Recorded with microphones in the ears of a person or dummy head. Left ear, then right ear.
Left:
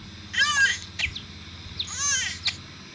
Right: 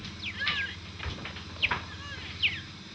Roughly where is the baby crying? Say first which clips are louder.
Left 11 dB; left.